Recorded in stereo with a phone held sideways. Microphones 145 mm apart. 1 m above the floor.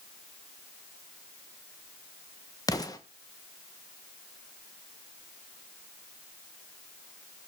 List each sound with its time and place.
2.7 s an explosion: 25° left (ahead or behind), 1.1 m